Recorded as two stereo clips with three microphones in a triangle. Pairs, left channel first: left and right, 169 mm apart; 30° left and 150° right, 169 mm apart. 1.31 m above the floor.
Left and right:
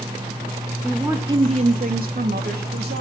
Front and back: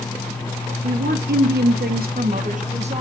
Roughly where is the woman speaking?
Behind.